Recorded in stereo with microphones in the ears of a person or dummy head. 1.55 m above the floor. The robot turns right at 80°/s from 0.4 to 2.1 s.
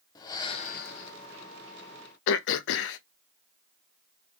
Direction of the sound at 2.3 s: 70° left (ahead or behind).